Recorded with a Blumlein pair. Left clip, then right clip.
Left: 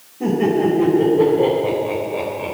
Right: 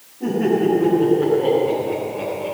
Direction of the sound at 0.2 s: 25° left.